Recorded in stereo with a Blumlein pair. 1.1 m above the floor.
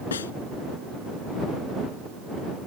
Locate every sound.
0.1 s a snare drum: 65° left